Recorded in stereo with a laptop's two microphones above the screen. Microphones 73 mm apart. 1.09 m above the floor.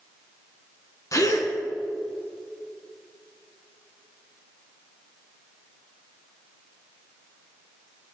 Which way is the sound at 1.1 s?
50° left (ahead or behind).